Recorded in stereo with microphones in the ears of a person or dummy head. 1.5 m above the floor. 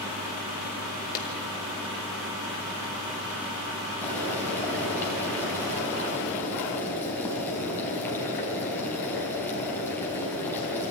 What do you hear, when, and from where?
1.1 s a clap: 45° left (ahead or behind), 2.5 m
4.0 s boiling: 10° left (ahead or behind), 5 m